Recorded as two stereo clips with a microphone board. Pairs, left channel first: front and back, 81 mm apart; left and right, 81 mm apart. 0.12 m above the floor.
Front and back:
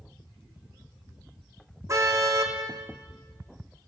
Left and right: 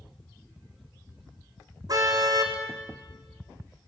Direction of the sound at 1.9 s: 130° right.